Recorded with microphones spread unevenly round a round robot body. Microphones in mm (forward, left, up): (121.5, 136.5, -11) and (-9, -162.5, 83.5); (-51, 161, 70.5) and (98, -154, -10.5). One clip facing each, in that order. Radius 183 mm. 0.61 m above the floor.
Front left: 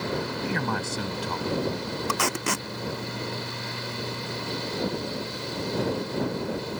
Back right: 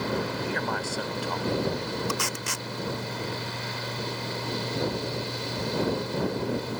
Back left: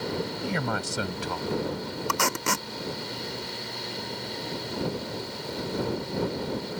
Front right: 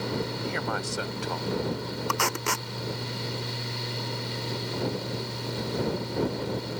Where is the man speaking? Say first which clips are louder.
Front left 2 dB, back left 1 dB; 125° left; by 2.0 s 130° left.